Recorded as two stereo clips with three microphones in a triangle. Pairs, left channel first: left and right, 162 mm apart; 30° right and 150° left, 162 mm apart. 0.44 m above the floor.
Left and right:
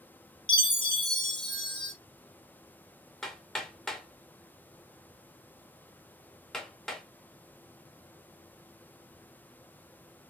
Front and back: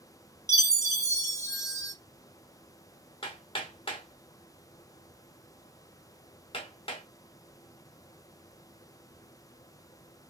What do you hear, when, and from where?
0.5 s a chime: 35° left, 0.6 m
3.2 s hammering: 5° left, 0.7 m